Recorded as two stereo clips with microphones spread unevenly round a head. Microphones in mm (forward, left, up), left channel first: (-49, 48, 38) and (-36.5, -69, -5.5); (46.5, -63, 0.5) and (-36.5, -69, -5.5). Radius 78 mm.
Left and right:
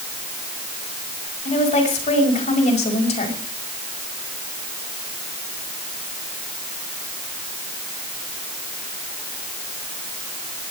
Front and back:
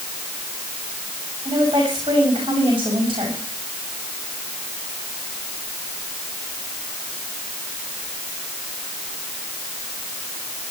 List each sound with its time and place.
1.4 s a woman speaking: 125° left, 5.5 m